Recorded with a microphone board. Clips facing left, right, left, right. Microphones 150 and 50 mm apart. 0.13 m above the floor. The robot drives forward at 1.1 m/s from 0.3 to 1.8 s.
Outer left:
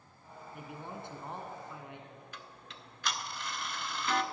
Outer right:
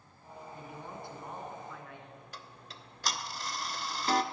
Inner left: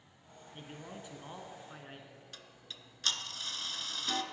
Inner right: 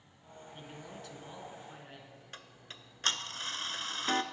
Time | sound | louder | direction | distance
0.5 | a man speaking | outer left 2 dB, inner left 1 dB | 20° left (ahead or behind) | 1.4 m
2.3 | ticking | outer right 1 dB, inner right 2 dB | 40° right (ahead or behind) | 0.5 m